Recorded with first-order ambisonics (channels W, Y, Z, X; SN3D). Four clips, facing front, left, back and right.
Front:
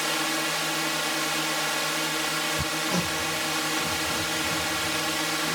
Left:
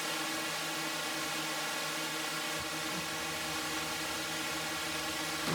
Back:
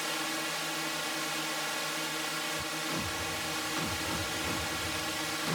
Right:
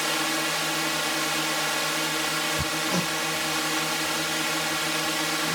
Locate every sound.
0.0 s a drone: 50° right
2.6 s hammering: 50° right